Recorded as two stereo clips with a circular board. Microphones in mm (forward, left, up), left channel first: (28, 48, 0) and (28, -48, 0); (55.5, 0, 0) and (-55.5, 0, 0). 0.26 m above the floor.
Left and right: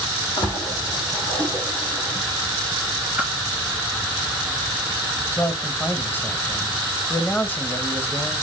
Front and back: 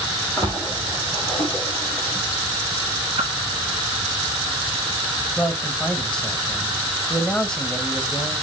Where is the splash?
75° left, 5 m.